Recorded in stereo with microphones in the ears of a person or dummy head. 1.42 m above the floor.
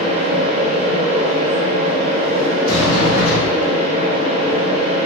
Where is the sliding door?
55° left (ahead or behind), 1.3 m.